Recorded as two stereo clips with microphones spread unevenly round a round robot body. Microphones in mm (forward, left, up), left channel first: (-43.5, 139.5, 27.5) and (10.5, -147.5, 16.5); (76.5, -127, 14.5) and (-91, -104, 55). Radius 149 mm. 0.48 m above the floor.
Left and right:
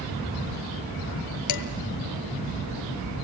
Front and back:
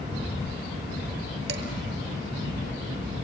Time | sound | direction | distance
1.5 | dishes clattering | 125° left | 2.0 m